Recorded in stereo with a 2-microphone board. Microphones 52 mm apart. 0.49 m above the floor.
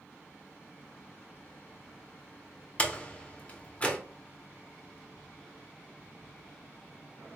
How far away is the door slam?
About 0.8 m.